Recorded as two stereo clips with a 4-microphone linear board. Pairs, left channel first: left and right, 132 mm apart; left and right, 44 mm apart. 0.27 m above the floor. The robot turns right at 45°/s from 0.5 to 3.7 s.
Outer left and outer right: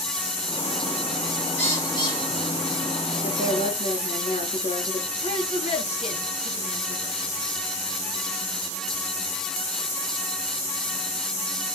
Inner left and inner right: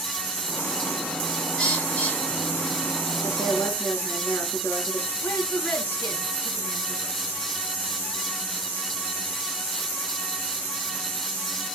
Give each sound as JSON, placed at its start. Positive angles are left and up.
{"t": 1.6, "sound": "a bird", "side_deg": 15, "distance_m": 4.5}
{"t": 3.2, "sound": "a woman speaking", "side_deg": 65, "distance_m": 3.5}
{"t": 5.2, "sound": "a woman speaking", "side_deg": 55, "distance_m": 3.0}